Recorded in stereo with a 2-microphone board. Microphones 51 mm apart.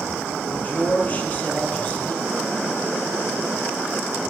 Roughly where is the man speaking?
Left.